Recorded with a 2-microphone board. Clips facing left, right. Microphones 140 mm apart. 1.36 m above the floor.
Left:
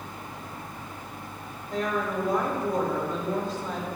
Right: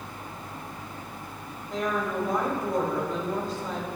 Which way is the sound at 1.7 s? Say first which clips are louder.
Even; centre (ahead or behind).